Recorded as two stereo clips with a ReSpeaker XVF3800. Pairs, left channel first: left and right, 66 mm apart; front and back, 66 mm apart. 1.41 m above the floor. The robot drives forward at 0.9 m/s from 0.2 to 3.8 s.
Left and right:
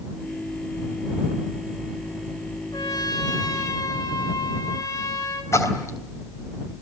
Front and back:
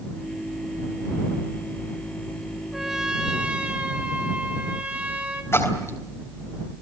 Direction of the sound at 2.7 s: 95° left.